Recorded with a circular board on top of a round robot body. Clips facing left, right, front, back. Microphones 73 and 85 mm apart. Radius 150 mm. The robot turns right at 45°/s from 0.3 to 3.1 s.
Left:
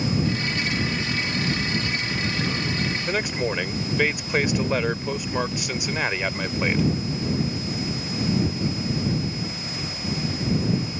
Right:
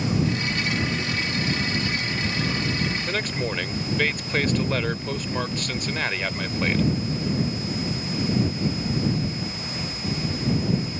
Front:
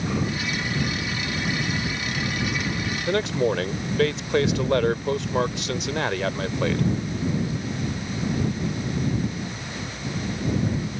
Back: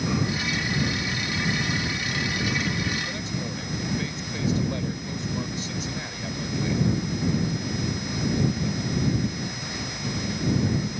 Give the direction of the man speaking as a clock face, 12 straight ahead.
12 o'clock.